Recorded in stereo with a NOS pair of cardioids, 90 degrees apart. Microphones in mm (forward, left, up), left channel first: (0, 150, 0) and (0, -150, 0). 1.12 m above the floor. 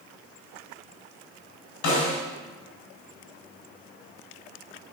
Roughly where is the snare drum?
Left.